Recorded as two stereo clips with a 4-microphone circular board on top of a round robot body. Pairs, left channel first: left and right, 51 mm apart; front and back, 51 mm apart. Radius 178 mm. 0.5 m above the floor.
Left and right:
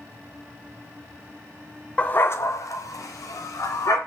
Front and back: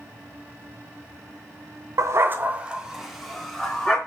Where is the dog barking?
155° left, 1.0 m; by 4.0 s 80° left, 3 m.